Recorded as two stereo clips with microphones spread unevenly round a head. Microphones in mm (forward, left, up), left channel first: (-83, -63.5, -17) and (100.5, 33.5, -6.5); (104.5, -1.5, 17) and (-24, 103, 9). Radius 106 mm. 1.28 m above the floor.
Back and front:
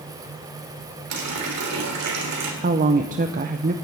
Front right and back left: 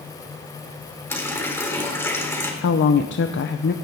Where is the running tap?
35° left, 3 m.